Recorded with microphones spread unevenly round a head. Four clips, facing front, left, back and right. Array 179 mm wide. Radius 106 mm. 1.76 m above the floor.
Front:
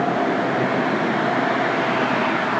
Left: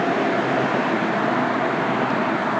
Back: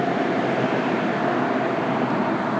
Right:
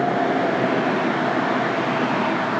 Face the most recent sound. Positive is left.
No sound to turn to.